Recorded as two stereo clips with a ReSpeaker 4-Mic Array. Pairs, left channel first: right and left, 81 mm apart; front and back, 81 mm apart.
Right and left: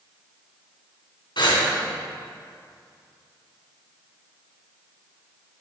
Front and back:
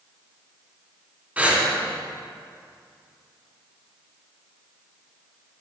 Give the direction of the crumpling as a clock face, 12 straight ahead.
I don't hear crumpling.